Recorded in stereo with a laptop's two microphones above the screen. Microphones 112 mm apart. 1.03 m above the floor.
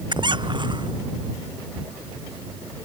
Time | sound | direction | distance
0.1 | a squeak | 45° right (ahead or behind) | ?